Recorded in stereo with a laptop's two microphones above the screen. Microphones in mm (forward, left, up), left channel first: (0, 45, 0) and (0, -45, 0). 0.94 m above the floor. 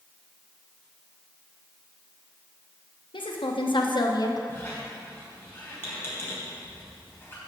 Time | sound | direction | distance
3.1 | a woman speaking | 70° left (ahead or behind) | 0.9 m
4.5 | a squeak | 25° left (ahead or behind) | 3.5 m